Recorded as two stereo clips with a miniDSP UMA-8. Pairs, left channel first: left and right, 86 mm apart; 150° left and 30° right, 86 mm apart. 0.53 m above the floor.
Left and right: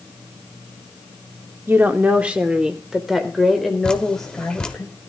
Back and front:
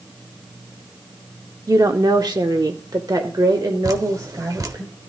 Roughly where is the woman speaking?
Ahead right.